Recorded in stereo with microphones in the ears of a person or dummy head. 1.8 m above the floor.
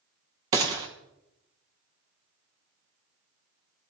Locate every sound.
0.5 s a gunshot: 15° right (ahead or behind), 1.0 m